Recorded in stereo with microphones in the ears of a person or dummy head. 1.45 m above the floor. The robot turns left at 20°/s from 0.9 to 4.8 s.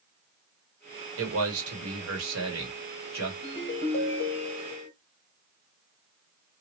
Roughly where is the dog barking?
I don't hear a dog barking.